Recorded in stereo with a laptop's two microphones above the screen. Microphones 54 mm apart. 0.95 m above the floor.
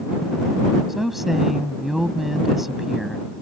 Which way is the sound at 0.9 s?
5° right (ahead or behind).